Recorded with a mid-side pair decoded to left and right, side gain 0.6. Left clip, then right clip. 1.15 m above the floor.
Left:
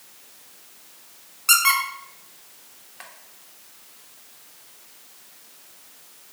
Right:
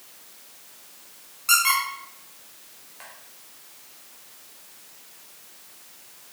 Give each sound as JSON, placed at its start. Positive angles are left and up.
{"t": 1.5, "sound": "a squeak", "azimuth_deg": 30, "distance_m": 0.9}